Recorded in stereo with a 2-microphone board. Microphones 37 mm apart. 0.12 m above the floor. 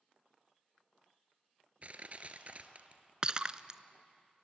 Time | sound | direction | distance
1.8 | crushing | 45° right (ahead or behind) | 1.4 m
3.2 | breaking glass | 25° right (ahead or behind) | 0.6 m